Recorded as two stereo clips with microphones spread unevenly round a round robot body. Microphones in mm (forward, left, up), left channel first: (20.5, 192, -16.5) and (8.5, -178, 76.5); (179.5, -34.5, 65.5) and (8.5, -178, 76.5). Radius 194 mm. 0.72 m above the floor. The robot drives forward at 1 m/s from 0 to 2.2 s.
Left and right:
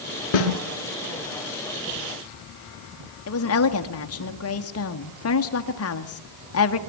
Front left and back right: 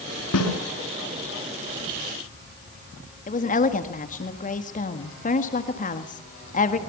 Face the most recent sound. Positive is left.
turn(degrees=80)